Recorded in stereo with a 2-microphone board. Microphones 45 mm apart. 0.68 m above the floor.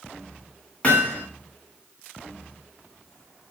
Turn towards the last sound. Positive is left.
turn(degrees=30)  # may be behind; listen again after turning